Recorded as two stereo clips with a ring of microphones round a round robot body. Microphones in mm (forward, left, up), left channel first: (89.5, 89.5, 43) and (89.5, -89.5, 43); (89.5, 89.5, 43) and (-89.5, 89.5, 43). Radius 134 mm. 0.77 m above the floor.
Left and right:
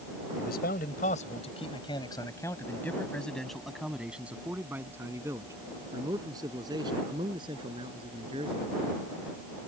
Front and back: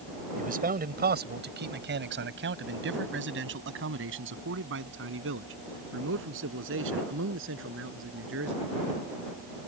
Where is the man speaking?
140° left; by 8.7 s 160° right.